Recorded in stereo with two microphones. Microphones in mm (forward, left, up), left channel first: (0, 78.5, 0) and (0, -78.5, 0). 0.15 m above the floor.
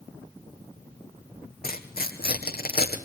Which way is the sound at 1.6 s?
75° left (ahead or behind).